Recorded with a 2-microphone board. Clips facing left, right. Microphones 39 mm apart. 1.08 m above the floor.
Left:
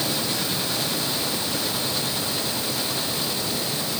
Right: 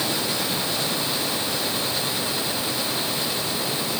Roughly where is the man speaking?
I don't hear a man speaking.